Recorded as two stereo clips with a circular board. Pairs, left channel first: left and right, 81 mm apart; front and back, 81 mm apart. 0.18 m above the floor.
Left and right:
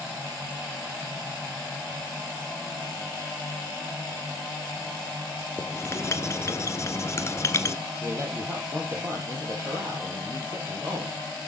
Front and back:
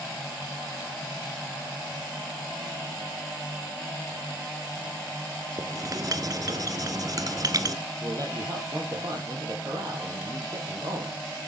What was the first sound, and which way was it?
Writing, 140° left.